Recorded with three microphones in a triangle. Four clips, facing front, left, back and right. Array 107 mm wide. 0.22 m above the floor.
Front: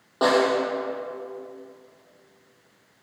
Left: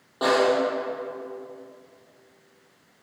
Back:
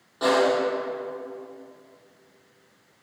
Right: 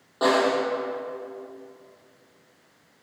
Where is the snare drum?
5° right, 5.5 m.